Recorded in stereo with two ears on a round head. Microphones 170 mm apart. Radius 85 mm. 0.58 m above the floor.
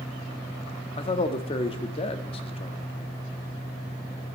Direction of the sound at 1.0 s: 30° left (ahead or behind).